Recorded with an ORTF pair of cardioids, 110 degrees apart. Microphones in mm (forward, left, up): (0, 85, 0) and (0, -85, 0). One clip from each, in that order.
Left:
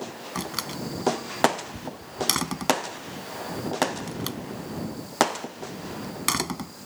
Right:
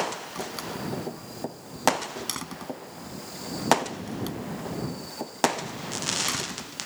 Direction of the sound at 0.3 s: 50° left.